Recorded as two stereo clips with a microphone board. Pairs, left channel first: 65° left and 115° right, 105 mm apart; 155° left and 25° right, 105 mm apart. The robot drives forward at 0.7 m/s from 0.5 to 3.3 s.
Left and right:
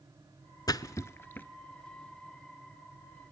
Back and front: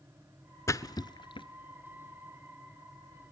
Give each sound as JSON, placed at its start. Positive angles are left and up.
{"t": 0.7, "sound": "a splash", "azimuth_deg": 105, "distance_m": 0.8}